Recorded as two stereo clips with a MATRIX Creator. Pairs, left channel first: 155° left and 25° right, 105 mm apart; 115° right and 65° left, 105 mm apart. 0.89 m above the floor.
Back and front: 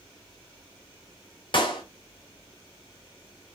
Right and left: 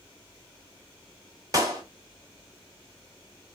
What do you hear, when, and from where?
1.5 s a clap: 120° left, 1.4 m